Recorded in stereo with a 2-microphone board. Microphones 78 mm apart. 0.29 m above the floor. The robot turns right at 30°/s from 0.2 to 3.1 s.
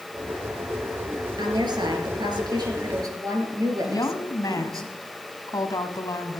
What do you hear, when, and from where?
1.4 s a woman speaking: 105° right, 4.5 m; by 4.8 s 55° right, 4.5 m
3.8 s a woman speaking: 55° left (ahead or behind), 2 m